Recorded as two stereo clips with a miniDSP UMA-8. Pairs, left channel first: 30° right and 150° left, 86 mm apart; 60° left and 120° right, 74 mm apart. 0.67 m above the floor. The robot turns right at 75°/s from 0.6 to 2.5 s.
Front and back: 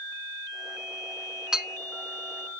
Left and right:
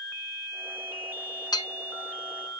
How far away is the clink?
About 0.6 m.